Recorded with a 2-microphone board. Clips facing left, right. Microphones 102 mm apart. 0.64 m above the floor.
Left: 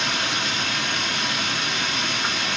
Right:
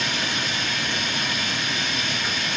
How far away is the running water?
About 3.5 m.